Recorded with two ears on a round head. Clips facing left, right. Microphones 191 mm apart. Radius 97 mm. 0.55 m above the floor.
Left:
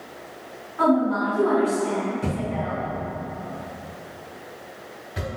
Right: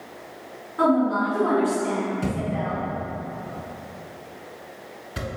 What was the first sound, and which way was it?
A woman speaking, 50° right (ahead or behind).